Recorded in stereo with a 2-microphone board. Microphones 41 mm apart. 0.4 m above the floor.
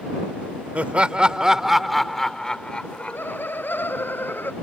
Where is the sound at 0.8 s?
35° right (ahead or behind); by 3.4 s 45° left (ahead or behind).